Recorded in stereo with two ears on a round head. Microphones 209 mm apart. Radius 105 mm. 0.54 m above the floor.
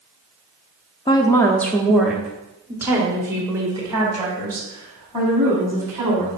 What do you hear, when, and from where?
1.1 s a woman speaking: 20° left (ahead or behind), 0.7 m; by 6.4 s 20° right (ahead or behind), 3.5 m